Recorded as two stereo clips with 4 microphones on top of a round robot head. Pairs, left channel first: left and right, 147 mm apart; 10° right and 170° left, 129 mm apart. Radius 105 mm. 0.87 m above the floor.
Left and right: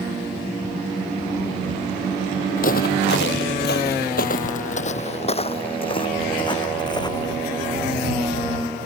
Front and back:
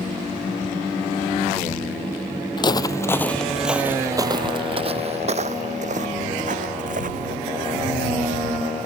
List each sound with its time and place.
2.6 s footsteps: 40° left; by 7.3 s 155° left